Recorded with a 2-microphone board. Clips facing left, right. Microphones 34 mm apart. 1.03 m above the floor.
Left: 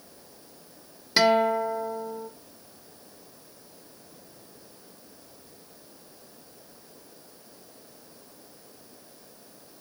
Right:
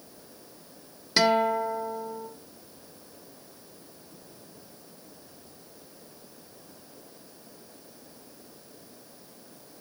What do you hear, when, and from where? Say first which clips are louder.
1.2 s a guitar: left 2 dB; 5° left (ahead or behind), 1.4 m